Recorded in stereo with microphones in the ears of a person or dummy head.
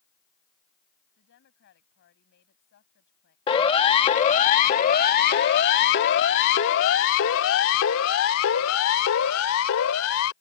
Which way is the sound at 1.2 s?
55° left (ahead or behind).